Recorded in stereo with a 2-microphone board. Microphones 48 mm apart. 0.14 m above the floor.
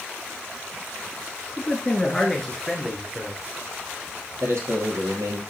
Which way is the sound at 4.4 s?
60° right (ahead or behind).